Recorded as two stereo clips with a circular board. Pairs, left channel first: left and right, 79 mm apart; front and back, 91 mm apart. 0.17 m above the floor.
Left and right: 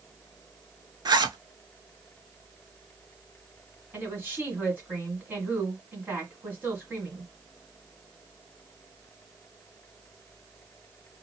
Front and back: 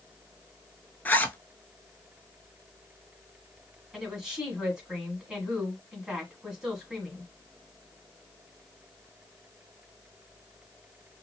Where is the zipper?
70° right, 0.5 m.